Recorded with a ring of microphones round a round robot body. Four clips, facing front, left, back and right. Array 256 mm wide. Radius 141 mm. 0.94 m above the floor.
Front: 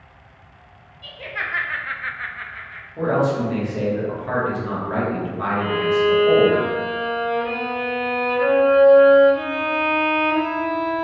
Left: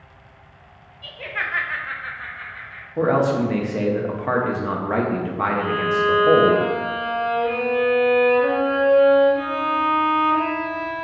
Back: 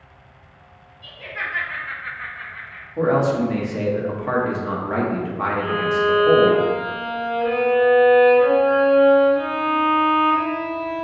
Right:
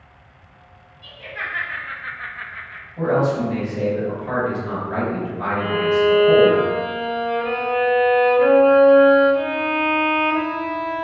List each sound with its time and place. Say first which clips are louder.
1.0 s laughter: left 2 dB, front 1 dB; 65° left, 0.9 m; by 2.9 s 70° right, 0.7 m
3.0 s a man speaking: left 1 dB, back 2 dB; 110° left, 0.9 m
5.6 s a violin: right 6 dB, front 2 dB; 60° right, 1.1 m